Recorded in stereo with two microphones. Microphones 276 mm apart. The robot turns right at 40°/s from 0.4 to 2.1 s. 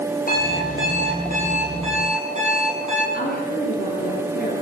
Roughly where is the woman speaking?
Left.